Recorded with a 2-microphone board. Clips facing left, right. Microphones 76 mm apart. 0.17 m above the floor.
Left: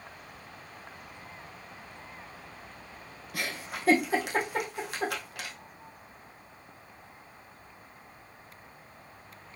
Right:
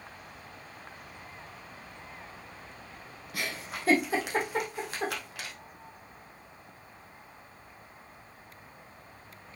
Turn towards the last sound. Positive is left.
turn(degrees=0)  # may be behind; listen again after turning